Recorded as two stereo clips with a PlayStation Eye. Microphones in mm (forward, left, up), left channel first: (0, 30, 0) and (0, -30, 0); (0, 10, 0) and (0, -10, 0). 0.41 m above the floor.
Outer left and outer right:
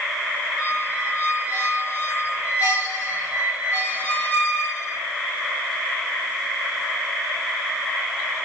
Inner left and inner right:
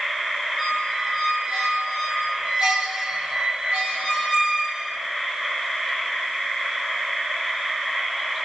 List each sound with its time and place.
0.6 s a squeak: 30° right (ahead or behind), 1.2 m